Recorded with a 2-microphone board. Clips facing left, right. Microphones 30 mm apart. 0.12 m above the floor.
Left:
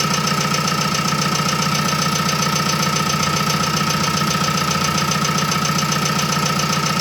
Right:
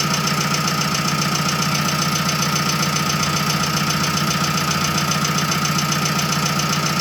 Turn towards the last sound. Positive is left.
turn(degrees=0)  # may be behind; listen again after turning